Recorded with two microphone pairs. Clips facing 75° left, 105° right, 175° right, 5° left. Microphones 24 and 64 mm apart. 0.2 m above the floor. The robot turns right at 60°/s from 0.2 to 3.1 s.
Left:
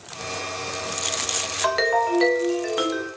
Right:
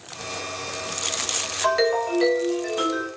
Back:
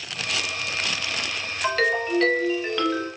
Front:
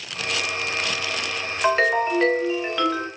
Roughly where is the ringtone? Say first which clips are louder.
Even, front 4 dB; ahead.